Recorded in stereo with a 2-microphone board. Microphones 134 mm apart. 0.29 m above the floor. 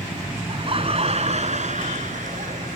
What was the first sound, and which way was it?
Laughter, 40° right (ahead or behind).